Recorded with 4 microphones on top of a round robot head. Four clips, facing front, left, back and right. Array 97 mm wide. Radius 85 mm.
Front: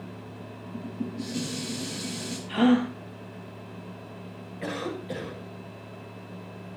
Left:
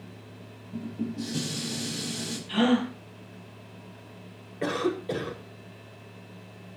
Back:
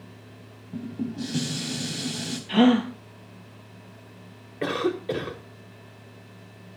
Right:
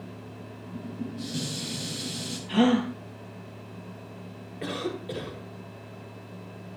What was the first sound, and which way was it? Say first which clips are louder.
Dishes clattering: left 3 dB, back 3 dB; 165° left.